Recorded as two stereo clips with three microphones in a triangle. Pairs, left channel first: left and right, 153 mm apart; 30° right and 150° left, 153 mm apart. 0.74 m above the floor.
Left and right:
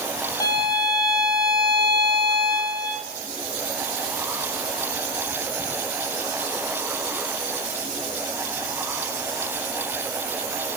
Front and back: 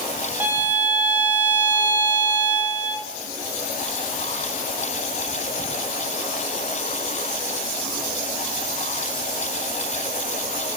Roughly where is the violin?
Left.